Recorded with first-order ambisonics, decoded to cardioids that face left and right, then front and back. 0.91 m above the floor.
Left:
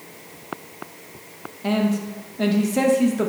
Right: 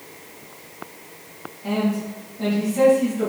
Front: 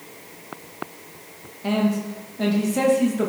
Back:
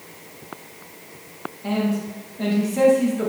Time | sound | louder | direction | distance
1.6 | a man speaking | left 1 dB, front 2 dB | 70° left | 0.8 m